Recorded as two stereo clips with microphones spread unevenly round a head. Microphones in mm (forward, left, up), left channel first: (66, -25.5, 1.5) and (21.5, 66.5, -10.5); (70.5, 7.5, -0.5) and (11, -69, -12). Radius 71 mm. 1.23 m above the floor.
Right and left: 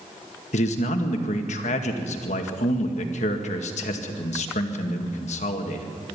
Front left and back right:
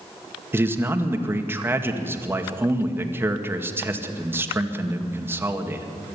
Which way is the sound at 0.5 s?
65° right.